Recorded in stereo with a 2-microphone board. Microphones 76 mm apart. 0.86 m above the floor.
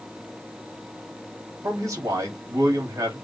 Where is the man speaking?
45° right (ahead or behind), 1.8 m.